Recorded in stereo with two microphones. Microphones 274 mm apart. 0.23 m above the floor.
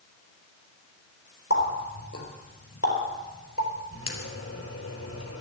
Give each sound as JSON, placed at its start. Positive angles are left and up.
{"t": 1.5, "sound": "a running tap", "side_deg": 55, "distance_m": 3.5}